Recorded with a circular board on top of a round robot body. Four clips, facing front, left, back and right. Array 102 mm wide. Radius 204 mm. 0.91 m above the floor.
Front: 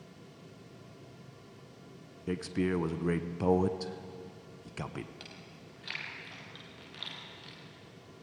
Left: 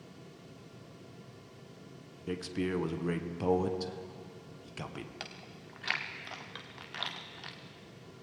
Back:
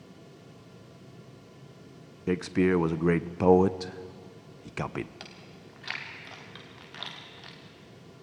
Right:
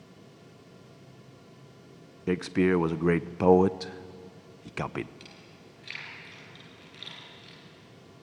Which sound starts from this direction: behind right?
A man speaking, at 2.3 s.